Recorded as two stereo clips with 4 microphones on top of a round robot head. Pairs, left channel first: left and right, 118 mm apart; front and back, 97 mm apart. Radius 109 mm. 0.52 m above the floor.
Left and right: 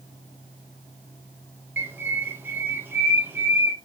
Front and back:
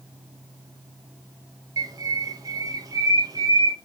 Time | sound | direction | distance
1.8 | a bird | 155° right | 0.7 m